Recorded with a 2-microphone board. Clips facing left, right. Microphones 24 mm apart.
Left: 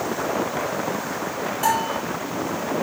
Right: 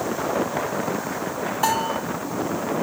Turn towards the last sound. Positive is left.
turn(degrees=-10)  # may be behind; listen again after turning